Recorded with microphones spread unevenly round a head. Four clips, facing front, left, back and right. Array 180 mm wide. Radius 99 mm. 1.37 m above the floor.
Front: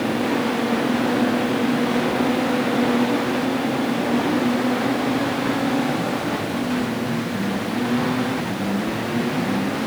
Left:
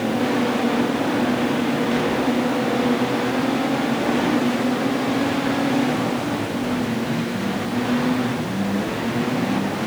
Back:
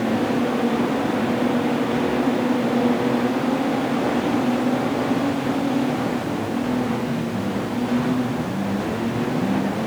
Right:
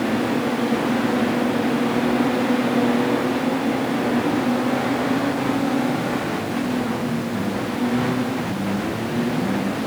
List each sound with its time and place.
Only background noise.